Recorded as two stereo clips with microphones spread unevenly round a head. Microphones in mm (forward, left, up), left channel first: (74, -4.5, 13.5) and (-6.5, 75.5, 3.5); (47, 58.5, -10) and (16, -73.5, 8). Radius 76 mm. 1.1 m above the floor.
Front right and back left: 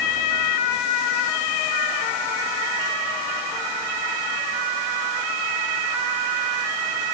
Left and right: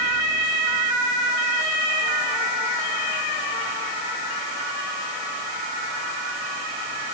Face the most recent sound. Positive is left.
No sound to turn to.